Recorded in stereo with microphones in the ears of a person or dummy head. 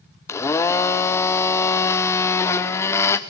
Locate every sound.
0.3 s a blender: 15° left (ahead or behind), 0.8 m